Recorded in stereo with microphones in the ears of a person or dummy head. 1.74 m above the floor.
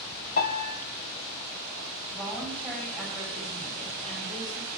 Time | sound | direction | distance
0.4 | a piano | 50° left (ahead or behind) | 3.5 m
2.1 | a woman speaking | 5° left (ahead or behind) | 10 m